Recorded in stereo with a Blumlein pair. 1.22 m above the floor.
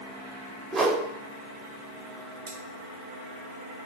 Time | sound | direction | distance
0.7 | a whoosh | 15° right | 0.5 m
2.5 | cutlery clinking | 60° right | 1.3 m